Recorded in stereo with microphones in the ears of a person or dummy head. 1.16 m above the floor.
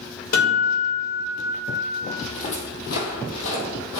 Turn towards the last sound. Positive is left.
turn(degrees=65)  # may be behind; listen again after turning